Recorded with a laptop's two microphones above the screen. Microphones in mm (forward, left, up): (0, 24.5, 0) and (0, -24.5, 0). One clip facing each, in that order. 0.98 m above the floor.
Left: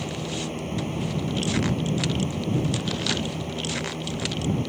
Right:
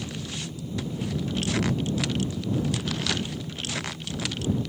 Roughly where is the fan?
Left.